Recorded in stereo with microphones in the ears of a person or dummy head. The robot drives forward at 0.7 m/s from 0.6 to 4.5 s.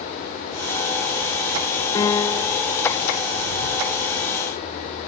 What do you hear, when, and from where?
1.9 s a piano: 10° left (ahead or behind); by 2.6 s 5° left (ahead or behind)